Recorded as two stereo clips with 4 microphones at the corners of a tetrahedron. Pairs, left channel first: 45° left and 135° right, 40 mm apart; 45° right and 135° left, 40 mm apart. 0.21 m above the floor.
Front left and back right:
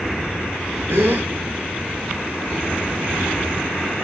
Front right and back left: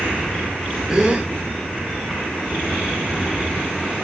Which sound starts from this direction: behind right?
A gasp, at 0.9 s.